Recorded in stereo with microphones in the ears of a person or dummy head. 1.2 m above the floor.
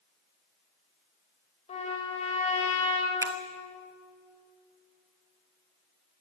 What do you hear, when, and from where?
1.7 s a trumpet: 35° left (ahead or behind), 5 m
3.2 s a finger snap: 20° right (ahead or behind), 1.2 m